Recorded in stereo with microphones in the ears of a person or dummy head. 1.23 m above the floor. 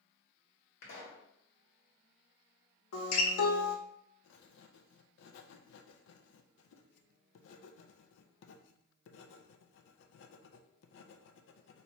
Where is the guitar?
75° left (ahead or behind), 0.9 m.